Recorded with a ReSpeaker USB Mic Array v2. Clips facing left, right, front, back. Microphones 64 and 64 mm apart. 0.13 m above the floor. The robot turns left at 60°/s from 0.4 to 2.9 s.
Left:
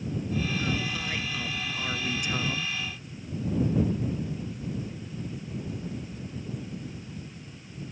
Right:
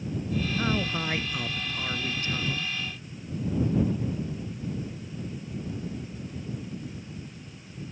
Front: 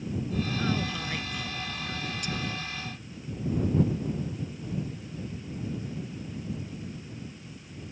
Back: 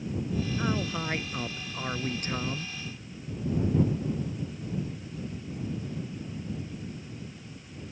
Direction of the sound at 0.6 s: 105° right.